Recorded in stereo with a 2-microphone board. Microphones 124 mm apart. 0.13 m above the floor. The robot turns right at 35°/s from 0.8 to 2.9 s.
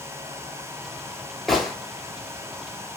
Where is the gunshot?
Centre (ahead or behind), 0.8 m; by 1.7 s 5° right (ahead or behind), 0.8 m.